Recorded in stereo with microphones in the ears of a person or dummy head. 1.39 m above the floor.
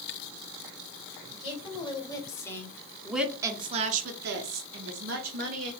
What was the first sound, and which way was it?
A woman speaking, 25° left (ahead or behind).